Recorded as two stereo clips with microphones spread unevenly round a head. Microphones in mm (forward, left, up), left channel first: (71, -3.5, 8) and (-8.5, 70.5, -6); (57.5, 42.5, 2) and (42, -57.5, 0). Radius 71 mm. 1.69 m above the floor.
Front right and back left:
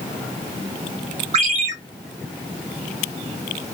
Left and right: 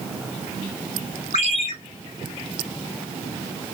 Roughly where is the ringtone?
Behind left.